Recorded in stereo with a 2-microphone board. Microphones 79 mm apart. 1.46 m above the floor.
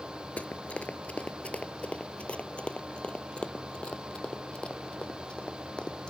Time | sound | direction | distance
0.4 | running footsteps | 15° left (ahead or behind) | ?